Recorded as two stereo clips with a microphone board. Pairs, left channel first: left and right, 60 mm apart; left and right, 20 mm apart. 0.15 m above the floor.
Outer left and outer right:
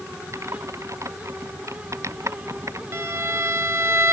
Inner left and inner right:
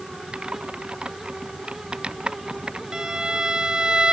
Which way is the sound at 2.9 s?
45° right (ahead or behind).